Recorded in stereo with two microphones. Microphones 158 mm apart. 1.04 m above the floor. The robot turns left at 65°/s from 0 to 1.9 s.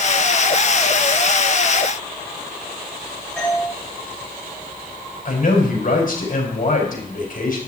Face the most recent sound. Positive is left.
turn(degrees=65)  # may be behind; listen again after turning